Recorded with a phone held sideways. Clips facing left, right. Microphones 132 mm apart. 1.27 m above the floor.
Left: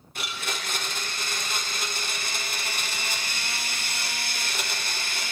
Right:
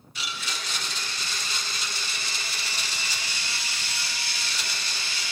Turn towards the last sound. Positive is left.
turn(degrees=55)  # may be behind; listen again after turning